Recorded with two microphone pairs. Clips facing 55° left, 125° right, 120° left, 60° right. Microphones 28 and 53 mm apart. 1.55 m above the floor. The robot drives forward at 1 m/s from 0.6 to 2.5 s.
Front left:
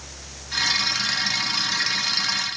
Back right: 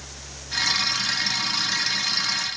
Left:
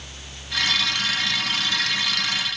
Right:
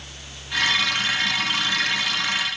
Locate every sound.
Only background noise.